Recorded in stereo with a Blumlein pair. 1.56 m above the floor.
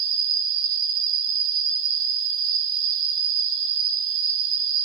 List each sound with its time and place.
0.0 s an insect: 35° right, 2 m